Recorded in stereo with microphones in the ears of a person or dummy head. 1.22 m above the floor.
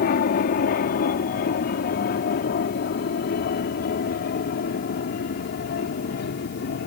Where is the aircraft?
45° left (ahead or behind); by 6.9 s 50° left (ahead or behind).